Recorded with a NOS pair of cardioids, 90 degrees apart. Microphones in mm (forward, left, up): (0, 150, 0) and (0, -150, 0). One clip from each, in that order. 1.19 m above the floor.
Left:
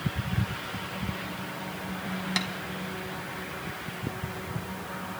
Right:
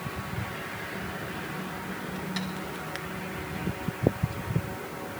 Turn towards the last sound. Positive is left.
turn(degrees=65)